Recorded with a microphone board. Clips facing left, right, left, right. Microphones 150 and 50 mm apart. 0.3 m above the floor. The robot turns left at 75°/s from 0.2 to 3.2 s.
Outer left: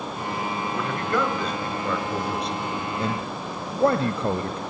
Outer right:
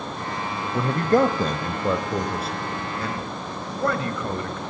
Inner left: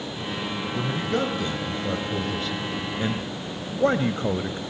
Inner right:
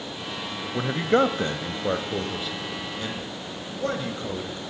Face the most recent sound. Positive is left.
turn(degrees=30)  # may be behind; listen again after turning